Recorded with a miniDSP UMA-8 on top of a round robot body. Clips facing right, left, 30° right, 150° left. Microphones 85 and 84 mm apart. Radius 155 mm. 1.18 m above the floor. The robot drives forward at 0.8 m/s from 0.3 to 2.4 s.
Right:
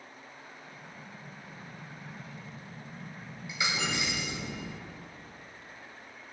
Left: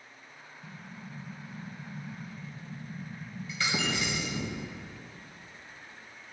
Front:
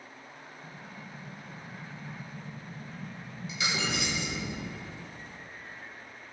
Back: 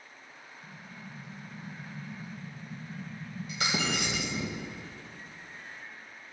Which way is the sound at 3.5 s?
165° right.